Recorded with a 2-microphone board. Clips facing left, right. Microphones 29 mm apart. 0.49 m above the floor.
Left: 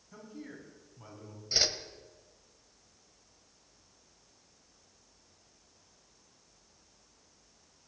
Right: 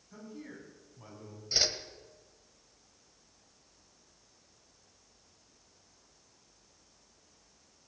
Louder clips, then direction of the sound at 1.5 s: Even; 10° left (ahead or behind).